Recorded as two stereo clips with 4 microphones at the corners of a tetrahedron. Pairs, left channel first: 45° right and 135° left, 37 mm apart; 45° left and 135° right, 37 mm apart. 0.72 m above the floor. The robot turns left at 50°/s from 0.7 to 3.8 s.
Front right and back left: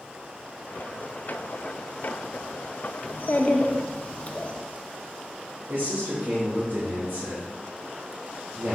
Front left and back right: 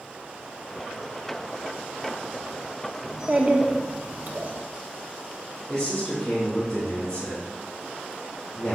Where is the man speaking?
125° left, 3 m.